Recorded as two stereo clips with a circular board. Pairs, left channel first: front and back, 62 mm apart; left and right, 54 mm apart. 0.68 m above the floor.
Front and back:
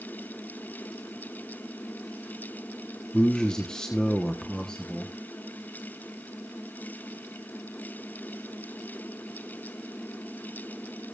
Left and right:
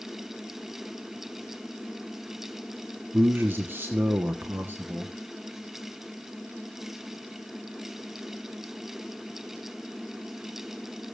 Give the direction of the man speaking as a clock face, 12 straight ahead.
2 o'clock.